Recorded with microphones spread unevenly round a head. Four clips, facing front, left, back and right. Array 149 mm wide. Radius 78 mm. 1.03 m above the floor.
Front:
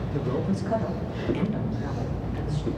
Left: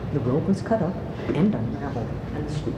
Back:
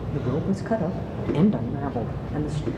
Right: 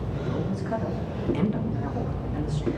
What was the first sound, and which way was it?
A man speaking, 95° left.